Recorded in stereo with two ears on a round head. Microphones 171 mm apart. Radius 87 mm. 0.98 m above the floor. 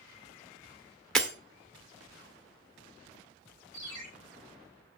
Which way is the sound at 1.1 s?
5° left (ahead or behind).